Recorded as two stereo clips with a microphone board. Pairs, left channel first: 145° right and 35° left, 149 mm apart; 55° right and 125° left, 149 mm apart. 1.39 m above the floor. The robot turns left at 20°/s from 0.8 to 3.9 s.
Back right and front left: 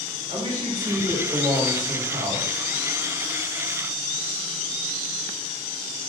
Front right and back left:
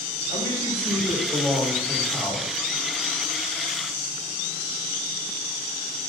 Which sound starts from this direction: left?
A man speaking, at 0.3 s.